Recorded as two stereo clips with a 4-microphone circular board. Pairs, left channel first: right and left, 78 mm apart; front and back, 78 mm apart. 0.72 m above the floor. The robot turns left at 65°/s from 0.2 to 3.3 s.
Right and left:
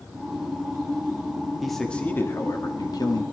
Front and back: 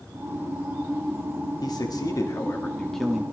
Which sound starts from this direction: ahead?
A man speaking, at 1.6 s.